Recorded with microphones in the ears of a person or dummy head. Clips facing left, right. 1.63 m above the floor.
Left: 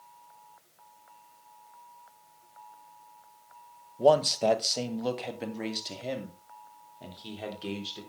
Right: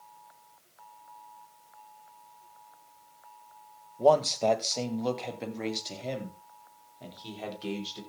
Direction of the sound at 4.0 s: 10° left (ahead or behind).